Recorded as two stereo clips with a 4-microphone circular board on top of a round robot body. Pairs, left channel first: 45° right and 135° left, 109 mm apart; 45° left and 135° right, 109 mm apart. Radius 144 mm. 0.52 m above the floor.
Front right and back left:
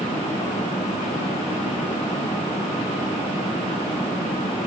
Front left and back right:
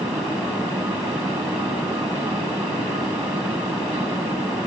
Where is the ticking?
No ticking in this recording.